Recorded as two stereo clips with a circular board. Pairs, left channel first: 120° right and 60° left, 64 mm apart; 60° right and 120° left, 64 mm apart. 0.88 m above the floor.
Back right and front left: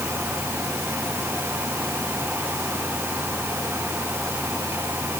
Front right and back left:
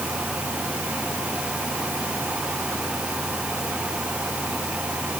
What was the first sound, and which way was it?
Only background noise.